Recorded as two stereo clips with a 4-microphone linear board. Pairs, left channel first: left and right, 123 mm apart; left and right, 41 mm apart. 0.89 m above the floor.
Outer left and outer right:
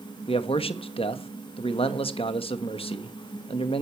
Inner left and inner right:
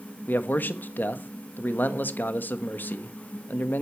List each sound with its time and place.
0.3 s a man speaking: 50° left (ahead or behind), 1.2 m